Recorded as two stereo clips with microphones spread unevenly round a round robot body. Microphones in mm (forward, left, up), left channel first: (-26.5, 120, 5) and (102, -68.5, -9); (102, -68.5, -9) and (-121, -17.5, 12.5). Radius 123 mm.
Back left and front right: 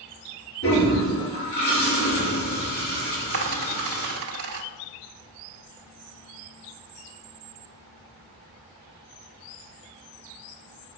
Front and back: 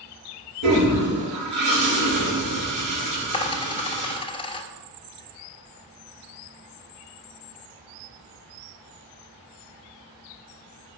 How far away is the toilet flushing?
About 4.5 m.